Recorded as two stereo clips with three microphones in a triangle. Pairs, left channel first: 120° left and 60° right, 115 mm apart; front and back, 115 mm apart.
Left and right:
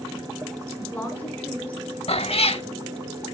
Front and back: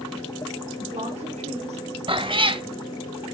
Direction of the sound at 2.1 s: 145° left.